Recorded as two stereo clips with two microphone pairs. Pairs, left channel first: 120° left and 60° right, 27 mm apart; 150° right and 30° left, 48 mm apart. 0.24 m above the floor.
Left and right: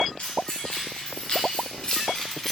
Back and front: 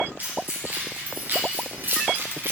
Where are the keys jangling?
80° left, 3.5 m; by 2.5 s 40° left, 1.2 m.